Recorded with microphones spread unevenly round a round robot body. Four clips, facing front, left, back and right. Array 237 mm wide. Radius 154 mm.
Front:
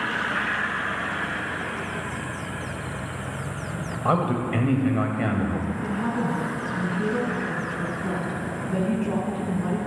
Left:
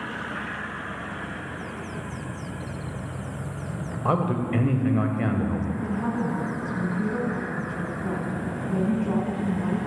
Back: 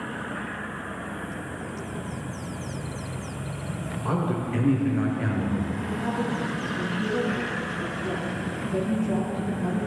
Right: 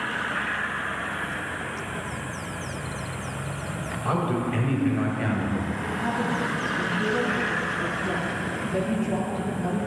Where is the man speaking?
25° left, 2.0 m.